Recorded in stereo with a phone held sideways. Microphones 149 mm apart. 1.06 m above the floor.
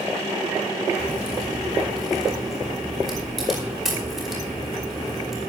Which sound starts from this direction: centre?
A crack, at 1.0 s.